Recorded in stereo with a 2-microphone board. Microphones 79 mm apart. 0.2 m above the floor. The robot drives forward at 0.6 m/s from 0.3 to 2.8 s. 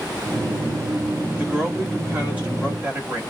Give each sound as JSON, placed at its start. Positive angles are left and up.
{"t": 1.4, "sound": "a woman speaking", "side_deg": -25, "distance_m": 2.0}